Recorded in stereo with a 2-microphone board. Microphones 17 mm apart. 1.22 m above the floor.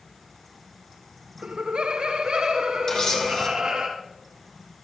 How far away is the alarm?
No alarm in this recording.